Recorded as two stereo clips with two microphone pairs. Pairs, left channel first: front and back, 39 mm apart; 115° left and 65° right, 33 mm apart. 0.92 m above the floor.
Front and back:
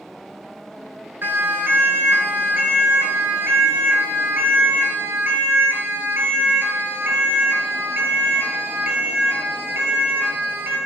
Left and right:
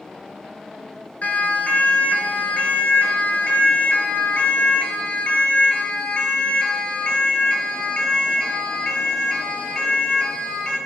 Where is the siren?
160° left, 8.5 m; by 10.8 s 175° right, 15 m.